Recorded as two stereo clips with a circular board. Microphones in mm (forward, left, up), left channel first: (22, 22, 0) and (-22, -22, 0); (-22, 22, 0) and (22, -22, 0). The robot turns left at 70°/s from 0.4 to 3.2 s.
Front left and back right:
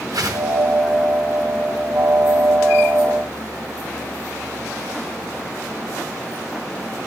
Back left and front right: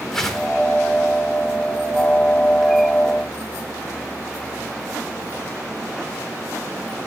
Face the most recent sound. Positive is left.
turn(degrees=25)